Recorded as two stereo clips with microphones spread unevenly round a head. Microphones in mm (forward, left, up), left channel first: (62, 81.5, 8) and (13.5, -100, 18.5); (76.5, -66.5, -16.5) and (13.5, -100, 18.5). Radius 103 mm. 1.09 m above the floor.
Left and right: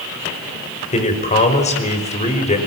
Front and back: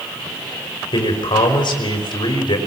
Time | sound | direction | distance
0.9 | a man speaking | 20° left | 5 m